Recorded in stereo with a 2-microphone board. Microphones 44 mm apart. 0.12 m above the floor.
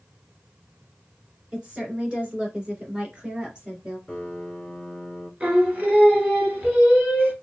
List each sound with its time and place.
1.5 s a woman speaking: 25° right (ahead or behind), 1.9 m
4.1 s a piano: 10° left (ahead or behind), 1.6 m
5.4 s singing: 35° right (ahead or behind), 1.3 m